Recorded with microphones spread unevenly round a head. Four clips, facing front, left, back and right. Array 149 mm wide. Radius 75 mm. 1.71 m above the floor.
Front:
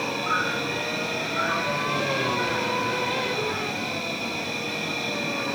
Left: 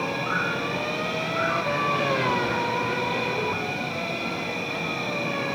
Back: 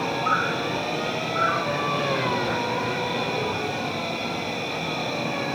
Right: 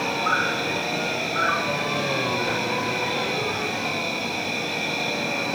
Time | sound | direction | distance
0.0 | an insect | 140° right | 8.5 m